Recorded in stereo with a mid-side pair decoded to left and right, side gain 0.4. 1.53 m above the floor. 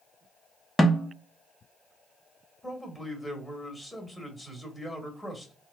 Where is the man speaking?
5° left, 1.7 m.